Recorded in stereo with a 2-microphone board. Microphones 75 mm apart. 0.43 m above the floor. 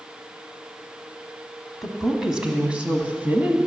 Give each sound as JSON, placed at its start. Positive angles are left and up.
{"t": 1.8, "sound": "a woman speaking", "side_deg": 0, "distance_m": 2.5}